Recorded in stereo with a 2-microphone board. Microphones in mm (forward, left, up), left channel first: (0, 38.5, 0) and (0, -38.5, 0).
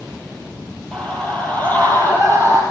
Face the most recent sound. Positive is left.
turn(degrees=30)  # may be behind; listen again after turning